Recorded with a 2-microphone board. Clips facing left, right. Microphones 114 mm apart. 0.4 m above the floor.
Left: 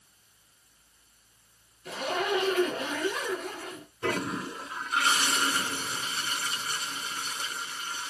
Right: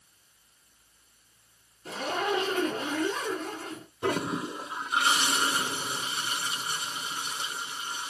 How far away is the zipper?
About 4 m.